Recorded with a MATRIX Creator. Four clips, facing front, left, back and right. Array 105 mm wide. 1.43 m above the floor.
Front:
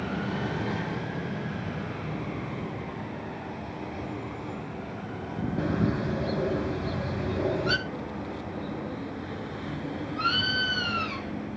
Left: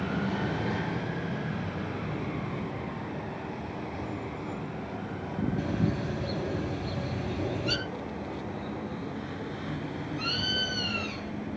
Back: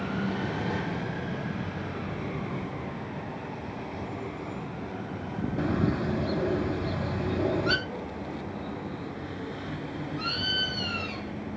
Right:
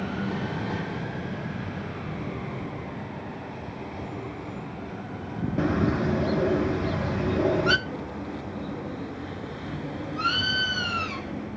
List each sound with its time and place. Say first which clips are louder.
5.6 s a bird: right 10 dB, even; 95° right, 1.6 m
7.9 s a bird: right 2 dB, front 1 dB; 55° right, 1.7 m